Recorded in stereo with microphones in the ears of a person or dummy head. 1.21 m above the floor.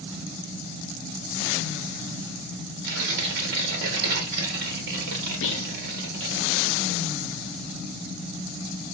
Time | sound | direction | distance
2.8 | tearing paper | 55° right (ahead or behind) | 1.0 m
5.4 | whispering | 60° left (ahead or behind) | 0.5 m